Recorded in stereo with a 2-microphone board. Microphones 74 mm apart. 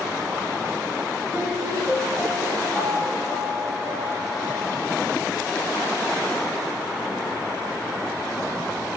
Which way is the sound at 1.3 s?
10° right (ahead or behind).